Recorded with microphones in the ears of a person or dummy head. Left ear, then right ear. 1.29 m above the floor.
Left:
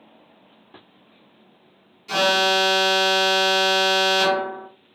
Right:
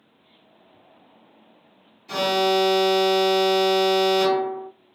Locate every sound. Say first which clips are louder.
2.1 s an alarm: left 3 dB; 35° left (ahead or behind), 1.1 m